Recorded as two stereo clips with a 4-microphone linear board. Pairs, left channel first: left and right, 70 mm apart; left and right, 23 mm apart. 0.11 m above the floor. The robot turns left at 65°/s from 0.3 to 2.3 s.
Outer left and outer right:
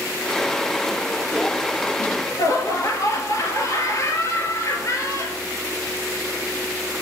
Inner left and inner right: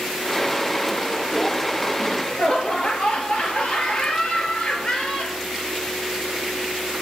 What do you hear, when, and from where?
2.0 s laughter: 40° left (ahead or behind), 2.5 m; by 5.4 s 45° left (ahead or behind), 2.5 m